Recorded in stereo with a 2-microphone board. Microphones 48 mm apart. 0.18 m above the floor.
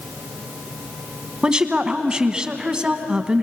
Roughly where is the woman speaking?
Centre.